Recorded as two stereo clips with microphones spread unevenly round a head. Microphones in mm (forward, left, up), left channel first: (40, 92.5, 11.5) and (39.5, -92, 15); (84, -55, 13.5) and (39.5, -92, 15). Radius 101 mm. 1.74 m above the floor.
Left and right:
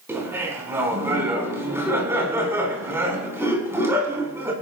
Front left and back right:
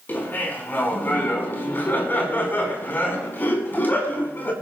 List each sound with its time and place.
0.1 s laughter: 15° right, 5 m